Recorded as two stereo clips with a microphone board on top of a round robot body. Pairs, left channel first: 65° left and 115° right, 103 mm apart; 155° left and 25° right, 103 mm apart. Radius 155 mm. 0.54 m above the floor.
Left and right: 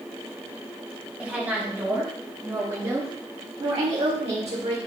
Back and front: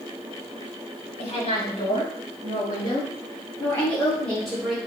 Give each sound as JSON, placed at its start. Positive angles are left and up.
{"t": 1.2, "sound": "a woman speaking", "azimuth_deg": 170, "distance_m": 4.0}